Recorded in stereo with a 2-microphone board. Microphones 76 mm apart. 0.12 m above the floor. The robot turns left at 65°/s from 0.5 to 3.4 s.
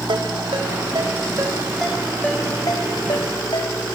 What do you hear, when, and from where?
0.1 s a ringtone: 80° right, 3.5 m; by 3.7 s 80° left, 3.5 m